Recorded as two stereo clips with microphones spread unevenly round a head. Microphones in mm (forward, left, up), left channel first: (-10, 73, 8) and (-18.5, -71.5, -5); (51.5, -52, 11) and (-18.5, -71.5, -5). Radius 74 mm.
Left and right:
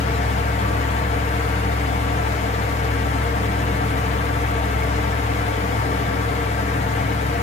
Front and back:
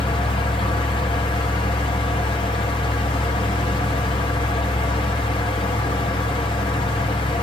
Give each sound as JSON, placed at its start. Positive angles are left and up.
{"t": 0.0, "sound": "a fan", "azimuth_deg": 35, "distance_m": 1.6}